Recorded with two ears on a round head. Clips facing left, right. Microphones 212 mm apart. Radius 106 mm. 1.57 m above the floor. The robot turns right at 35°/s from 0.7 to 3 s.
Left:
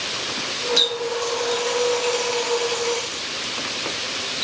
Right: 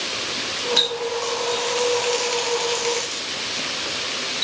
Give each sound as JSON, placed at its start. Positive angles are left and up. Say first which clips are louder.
{"t": 0.8, "sound": "a running tap", "louder": "left 1 dB", "side_deg": 0, "distance_m": 0.6}